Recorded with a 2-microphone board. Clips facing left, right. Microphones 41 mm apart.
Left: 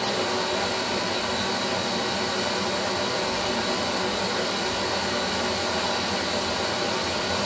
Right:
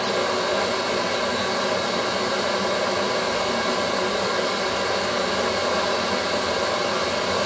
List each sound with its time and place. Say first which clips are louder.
0.0 s running water: right 3 dB; 40° right (ahead or behind), 3 m